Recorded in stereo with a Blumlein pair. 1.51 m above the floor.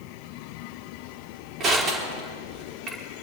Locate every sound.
1.6 s crushing: 25° right, 4 m